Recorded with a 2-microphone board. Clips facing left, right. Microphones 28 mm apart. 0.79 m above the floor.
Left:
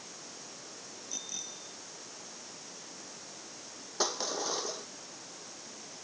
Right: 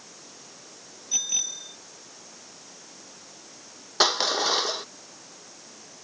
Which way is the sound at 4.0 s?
75° right (ahead or behind).